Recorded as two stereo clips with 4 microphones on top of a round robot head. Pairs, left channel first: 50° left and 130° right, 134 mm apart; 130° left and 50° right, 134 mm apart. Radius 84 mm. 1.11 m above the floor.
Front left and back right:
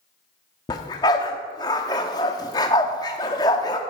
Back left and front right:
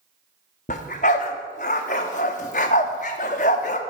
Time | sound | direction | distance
0.7 | a dog barking | 105° left | 0.8 m